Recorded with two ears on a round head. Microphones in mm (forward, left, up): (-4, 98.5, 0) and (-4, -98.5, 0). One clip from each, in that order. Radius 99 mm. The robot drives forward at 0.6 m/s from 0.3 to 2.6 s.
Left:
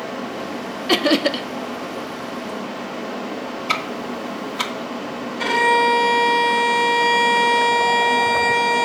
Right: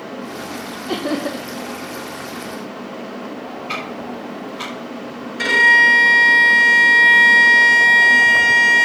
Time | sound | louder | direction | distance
0.9 | laughter | left 6 dB | 55° left (ahead or behind) | 0.5 m
3.7 | ticking | left 4 dB | 55° left (ahead or behind) | 1.5 m
5.4 | a violin | right 5 dB | 55° right (ahead or behind) | 5 m